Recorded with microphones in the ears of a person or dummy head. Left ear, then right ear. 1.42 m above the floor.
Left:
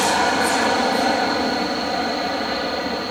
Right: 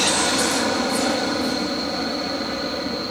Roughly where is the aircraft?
Left.